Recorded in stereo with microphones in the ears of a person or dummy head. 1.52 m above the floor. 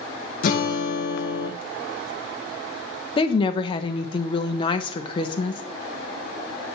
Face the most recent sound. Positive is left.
turn(degrees=20)  # may be behind; listen again after turning